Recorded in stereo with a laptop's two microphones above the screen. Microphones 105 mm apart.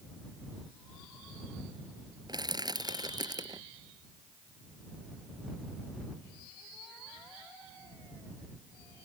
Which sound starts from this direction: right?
Crushing, at 2.3 s.